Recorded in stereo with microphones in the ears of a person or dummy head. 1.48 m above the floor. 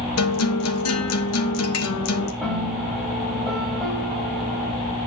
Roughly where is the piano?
Centre.